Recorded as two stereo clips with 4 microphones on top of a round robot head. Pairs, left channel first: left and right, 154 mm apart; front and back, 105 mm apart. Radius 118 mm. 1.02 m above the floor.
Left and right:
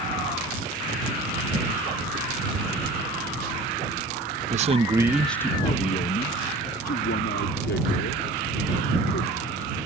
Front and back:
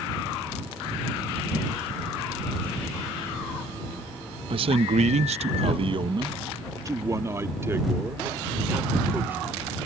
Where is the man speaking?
135° right; by 9.6 s 110° left.